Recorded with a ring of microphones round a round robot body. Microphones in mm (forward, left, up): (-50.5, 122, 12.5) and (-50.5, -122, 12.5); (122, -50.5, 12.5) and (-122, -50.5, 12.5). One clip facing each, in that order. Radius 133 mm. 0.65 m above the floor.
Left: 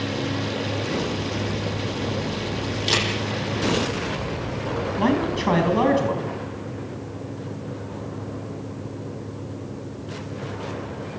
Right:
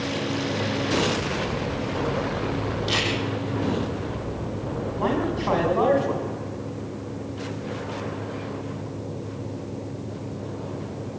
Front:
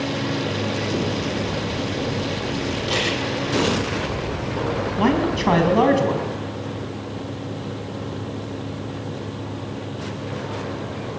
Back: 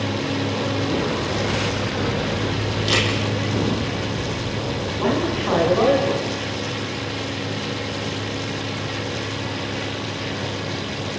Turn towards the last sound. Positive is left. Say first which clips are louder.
# left 3 dB, front 2 dB
turn(degrees=40)